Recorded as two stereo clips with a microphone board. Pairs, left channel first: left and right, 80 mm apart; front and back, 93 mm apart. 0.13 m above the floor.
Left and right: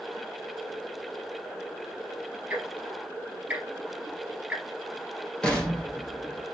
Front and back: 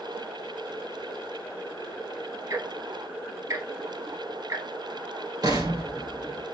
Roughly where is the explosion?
Behind.